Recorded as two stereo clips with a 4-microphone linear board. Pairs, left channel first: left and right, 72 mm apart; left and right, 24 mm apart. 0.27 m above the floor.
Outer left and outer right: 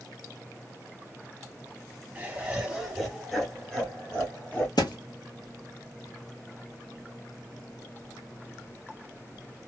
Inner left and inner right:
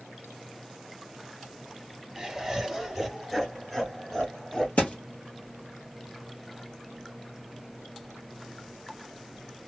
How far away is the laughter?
About 1.5 m.